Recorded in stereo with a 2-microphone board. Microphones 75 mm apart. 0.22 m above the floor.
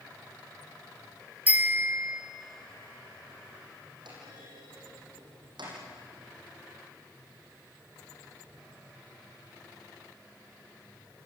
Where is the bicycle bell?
20° right (ahead or behind), 3.5 m.